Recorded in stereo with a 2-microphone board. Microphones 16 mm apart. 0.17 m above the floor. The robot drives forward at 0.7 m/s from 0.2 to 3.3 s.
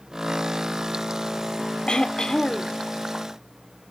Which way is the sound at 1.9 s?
75° left (ahead or behind).